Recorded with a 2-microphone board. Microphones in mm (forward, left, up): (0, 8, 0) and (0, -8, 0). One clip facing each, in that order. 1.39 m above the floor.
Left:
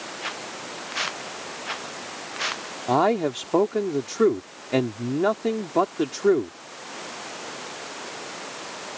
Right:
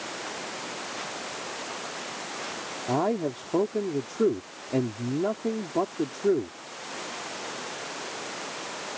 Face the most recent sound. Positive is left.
turn(degrees=70)  # may be behind; listen again after turning